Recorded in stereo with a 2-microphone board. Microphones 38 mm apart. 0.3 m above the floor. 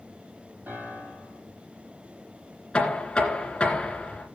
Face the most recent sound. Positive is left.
turn(degrees=25)  # may be behind; listen again after turning